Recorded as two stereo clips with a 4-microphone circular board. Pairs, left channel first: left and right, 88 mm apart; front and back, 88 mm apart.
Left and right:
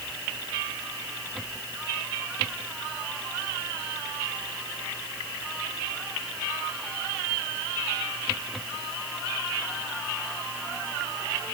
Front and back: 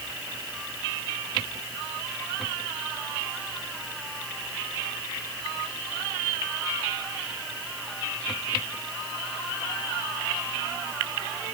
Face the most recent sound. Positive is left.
No sound to turn to.